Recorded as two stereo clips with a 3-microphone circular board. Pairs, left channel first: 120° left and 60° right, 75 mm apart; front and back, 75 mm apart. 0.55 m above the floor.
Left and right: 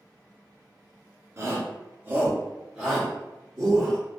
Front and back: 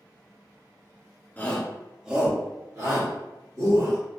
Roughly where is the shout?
Ahead right.